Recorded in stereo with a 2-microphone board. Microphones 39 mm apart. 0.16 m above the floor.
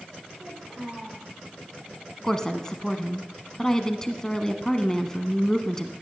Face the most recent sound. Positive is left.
turn(degrees=15)  # may be behind; listen again after turning